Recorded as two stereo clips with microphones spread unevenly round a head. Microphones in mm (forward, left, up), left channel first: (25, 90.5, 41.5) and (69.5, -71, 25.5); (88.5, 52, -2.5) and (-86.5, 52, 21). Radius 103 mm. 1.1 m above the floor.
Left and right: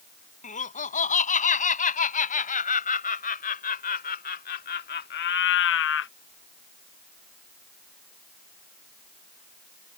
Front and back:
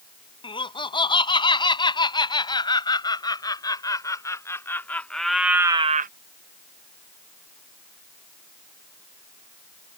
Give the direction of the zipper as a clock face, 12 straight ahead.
No zipper in this recording.